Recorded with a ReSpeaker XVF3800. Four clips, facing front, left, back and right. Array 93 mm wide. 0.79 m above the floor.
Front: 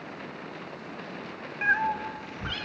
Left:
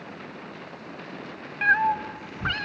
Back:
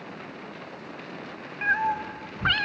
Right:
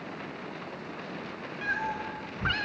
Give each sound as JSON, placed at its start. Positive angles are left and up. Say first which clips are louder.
{"t": 1.6, "sound": "a cat meowing", "louder": "left 10 dB, back 1 dB", "azimuth_deg": 80, "distance_m": 0.9}